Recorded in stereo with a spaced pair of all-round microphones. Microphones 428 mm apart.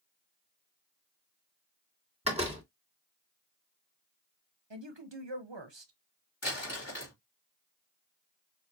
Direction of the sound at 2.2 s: 15° right (ahead or behind).